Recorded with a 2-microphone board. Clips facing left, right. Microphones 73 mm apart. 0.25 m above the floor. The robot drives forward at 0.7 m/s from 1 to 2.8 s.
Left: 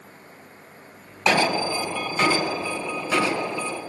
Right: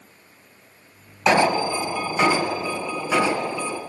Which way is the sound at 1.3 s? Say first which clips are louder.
Right 3 dB; 20° right (ahead or behind).